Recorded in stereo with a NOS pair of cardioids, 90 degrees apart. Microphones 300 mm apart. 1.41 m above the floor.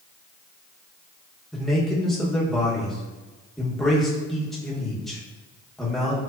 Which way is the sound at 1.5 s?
Straight ahead.